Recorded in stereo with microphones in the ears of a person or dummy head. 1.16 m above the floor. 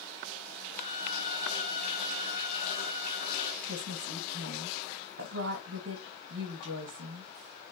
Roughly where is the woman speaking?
Right.